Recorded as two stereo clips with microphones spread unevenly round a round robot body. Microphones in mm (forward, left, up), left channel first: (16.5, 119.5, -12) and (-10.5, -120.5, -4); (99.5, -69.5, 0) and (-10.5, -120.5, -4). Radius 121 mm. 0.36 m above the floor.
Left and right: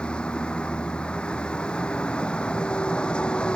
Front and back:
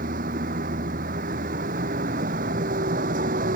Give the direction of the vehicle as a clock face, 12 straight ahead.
6 o'clock.